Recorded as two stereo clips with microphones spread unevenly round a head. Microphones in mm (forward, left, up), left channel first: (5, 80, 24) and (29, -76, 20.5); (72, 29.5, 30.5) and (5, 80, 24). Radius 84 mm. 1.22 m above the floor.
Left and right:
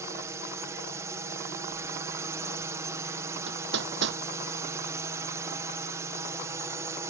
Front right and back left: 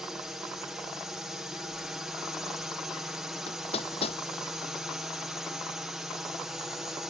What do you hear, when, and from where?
0.0 s a drone: 140° right
3.5 s hammering: 70° right